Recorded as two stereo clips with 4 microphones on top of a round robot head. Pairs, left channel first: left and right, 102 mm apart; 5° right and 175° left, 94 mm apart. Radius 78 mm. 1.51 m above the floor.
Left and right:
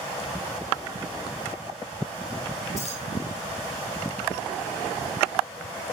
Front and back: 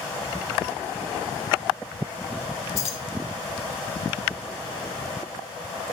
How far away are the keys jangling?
About 4.5 m.